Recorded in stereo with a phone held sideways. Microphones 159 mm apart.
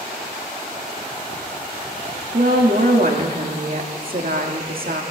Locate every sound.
2.3 s a woman speaking: 65° right (ahead or behind), 1.7 m